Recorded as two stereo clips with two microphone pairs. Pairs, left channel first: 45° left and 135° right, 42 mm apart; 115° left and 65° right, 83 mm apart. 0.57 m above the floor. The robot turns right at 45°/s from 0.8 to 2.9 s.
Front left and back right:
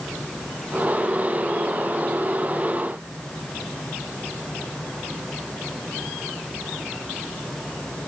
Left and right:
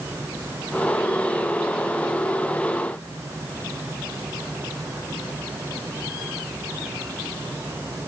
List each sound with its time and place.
Only background noise.